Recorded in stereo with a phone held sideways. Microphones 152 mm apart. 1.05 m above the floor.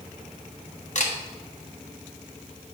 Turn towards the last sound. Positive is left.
turn(degrees=55)  # may be behind; listen again after turning